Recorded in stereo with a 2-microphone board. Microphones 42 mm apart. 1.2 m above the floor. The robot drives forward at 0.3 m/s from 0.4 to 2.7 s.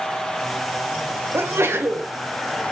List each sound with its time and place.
1.3 s a sneeze: 80° right, 0.6 m; by 2.1 s 60° right (ahead or behind), 0.7 m